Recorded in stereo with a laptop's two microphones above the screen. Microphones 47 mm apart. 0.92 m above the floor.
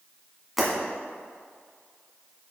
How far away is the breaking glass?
About 1.9 m.